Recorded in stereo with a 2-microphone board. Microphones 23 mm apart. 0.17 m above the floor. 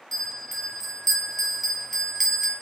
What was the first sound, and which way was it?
A bell, 10° left (ahead or behind).